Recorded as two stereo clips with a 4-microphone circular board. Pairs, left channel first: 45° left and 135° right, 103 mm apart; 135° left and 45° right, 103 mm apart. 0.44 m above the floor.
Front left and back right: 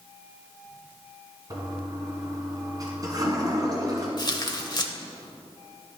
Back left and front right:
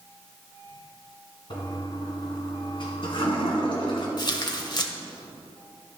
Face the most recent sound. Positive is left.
turn(degrees=90)